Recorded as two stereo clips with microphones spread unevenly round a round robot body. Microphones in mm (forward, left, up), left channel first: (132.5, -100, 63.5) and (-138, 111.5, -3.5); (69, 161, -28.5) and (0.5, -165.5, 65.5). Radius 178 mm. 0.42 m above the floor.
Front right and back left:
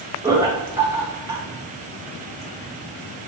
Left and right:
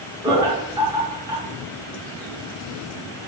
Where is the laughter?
155° left, 0.8 m.